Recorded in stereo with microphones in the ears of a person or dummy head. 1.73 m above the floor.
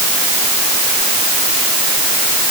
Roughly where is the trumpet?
No trumpet in this recording.